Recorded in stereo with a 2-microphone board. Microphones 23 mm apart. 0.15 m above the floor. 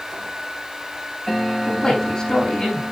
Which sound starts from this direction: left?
A man speaking, at 1.7 s.